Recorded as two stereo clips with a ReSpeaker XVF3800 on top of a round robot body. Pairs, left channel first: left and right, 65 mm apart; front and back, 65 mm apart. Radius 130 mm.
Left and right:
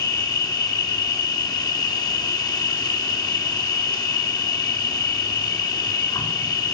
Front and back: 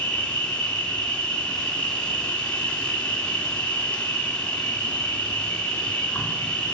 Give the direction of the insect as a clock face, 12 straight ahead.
10 o'clock.